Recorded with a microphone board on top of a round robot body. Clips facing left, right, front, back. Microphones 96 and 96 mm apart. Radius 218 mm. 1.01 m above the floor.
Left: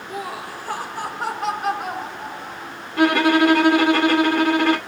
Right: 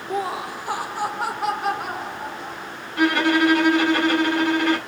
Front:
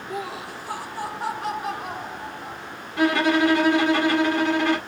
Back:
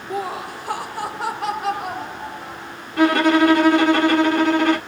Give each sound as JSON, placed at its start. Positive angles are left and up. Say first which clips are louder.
{"t": 0.1, "sound": "laughter", "louder": "right 5 dB, back 6 dB", "azimuth_deg": -125, "distance_m": 0.6}
{"t": 3.0, "sound": "a violin", "louder": "left 3 dB, back 5 dB", "azimuth_deg": 140, "distance_m": 1.1}